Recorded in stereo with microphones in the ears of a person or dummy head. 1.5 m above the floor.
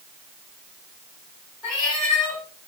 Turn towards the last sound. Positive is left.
turn(degrees=-10)  # may be behind; listen again after turning